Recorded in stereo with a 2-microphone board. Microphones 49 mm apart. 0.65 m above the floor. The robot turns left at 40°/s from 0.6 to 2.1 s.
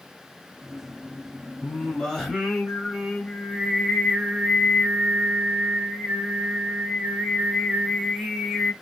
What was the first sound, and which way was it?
Singing, 15° left (ahead or behind).